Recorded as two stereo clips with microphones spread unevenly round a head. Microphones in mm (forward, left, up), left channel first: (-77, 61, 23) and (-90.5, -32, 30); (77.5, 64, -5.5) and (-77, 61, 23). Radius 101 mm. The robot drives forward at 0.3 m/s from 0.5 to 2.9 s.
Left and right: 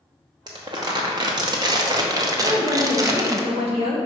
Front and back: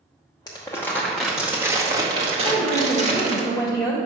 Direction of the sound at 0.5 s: 70° right.